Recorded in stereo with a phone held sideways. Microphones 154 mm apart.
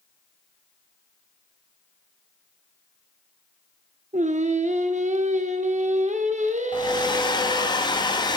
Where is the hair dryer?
30° left (ahead or behind), 0.6 m.